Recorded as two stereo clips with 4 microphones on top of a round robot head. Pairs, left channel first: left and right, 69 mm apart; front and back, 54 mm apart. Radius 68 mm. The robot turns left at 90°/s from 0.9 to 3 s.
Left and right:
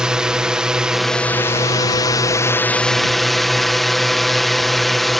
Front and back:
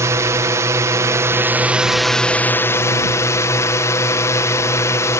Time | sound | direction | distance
0.0 | a drone | 170° right | ?